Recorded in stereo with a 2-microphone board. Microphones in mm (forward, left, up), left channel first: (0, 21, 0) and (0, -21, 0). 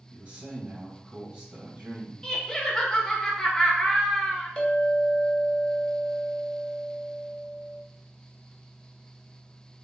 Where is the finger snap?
No finger snap in this recording.